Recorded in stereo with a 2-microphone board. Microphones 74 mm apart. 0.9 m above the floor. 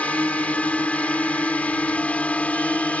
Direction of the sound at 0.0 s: 20° left (ahead or behind).